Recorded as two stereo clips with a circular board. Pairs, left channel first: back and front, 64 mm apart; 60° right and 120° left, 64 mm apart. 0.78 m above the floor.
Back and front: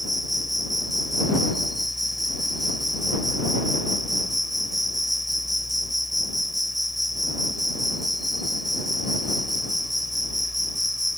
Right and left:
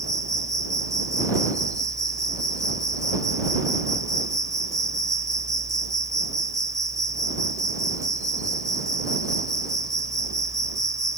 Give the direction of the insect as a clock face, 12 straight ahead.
9 o'clock.